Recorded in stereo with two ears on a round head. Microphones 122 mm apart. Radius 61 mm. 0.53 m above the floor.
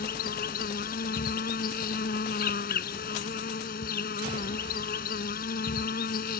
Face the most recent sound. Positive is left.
turn(degrees=80)